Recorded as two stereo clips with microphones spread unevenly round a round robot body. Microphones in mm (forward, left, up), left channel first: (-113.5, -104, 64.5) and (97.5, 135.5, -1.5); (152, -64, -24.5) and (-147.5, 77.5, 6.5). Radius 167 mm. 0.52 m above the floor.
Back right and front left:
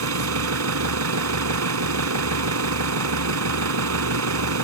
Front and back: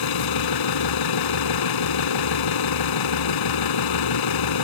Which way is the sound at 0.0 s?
Straight ahead.